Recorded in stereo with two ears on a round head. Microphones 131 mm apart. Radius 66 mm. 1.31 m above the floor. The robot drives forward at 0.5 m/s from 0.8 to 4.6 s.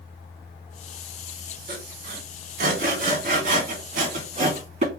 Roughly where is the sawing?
Right.